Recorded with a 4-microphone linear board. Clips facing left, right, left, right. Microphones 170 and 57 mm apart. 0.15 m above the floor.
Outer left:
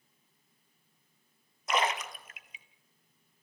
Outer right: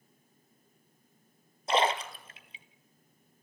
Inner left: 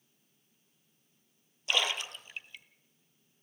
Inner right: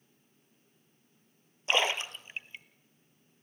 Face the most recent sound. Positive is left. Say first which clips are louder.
# outer right 3 dB, inner right 3 dB
turn(degrees=-30)  # may be behind; listen again after turning